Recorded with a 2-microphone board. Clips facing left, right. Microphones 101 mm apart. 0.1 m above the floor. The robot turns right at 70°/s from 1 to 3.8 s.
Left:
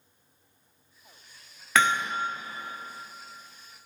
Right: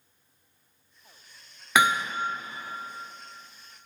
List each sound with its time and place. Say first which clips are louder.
1.8 s hammering: right 1 dB; 15° right (ahead or behind), 0.8 m; by 2.1 s 5° left (ahead or behind), 0.8 m